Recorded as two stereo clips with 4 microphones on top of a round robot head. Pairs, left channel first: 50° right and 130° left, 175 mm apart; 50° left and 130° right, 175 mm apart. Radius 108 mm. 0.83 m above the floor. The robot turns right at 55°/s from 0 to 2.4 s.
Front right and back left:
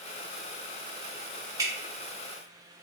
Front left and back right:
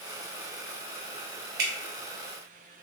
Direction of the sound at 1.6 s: 160° right.